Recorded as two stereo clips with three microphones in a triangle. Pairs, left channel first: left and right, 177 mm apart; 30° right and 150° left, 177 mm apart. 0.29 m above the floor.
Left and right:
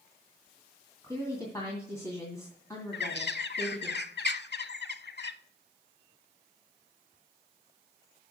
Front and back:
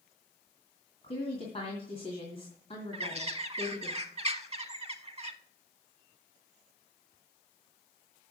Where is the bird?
100° left, 0.6 m.